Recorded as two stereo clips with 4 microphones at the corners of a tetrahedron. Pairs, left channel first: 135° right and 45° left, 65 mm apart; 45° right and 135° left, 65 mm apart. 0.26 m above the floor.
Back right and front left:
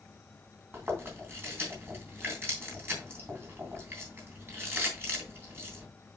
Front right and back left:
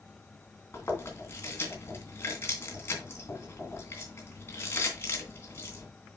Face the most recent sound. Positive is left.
turn(degrees=0)